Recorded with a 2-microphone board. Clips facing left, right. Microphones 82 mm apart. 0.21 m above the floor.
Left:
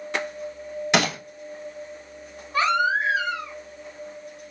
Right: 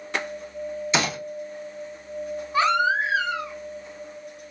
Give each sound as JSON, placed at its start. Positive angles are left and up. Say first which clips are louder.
{"t": 0.9, "sound": "a gunshot", "louder": "left 3 dB", "side_deg": 75, "distance_m": 1.0}
{"t": 2.5, "sound": "a baby crying", "louder": "even", "side_deg": -5, "distance_m": 1.5}